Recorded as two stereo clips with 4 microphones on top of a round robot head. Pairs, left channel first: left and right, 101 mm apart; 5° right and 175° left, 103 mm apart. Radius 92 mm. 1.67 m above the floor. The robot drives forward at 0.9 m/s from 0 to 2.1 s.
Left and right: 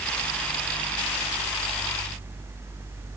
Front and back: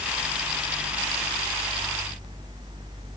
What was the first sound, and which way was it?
Only background noise.